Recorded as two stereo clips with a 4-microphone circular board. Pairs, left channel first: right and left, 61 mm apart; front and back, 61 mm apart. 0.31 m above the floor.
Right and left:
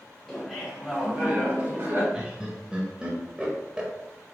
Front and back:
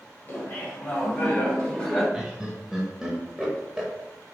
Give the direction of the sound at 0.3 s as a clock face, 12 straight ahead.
12 o'clock.